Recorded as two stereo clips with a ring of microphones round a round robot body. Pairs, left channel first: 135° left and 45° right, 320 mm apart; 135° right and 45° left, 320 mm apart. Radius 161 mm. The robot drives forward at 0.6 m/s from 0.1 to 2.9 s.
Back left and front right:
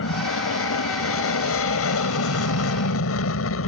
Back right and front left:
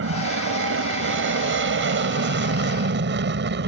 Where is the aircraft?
90° left; by 3.7 s 95° left.